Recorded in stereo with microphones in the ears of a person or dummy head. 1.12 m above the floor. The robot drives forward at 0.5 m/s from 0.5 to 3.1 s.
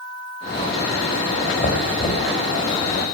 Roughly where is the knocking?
Left.